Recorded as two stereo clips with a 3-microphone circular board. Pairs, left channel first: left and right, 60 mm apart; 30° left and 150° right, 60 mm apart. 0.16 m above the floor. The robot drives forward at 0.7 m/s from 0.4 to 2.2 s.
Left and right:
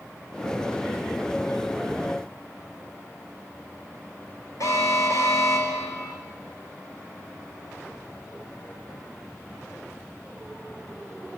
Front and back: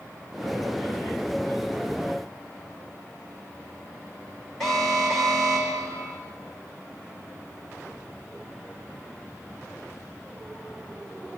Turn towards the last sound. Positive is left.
turn(degrees=115)